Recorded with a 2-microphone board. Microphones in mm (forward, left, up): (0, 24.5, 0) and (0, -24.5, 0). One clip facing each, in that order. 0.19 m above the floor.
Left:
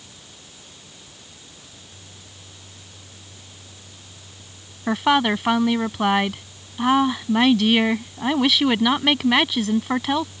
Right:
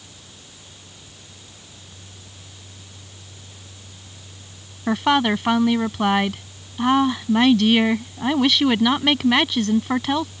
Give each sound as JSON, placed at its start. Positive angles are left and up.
{"t": 4.9, "sound": "a woman speaking", "side_deg": 0}